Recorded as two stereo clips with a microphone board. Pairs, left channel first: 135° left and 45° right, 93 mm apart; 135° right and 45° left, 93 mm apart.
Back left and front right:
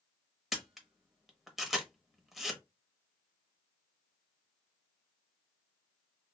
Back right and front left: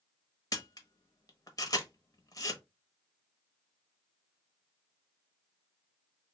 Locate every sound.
0.5 s a camera shutter: 135° right, 0.8 m